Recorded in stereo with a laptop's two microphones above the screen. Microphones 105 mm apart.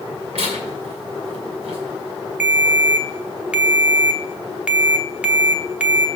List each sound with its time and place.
0.3 s tearing paper: 70° right (ahead or behind), 2.5 m
2.4 s a ringtone: 10° right (ahead or behind), 0.8 m